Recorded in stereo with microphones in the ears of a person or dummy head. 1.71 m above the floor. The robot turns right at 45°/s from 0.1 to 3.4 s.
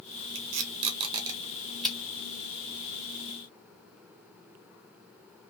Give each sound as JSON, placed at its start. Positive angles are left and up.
{"t": 0.3, "sound": "tape being pulled", "side_deg": -50, "distance_m": 0.9}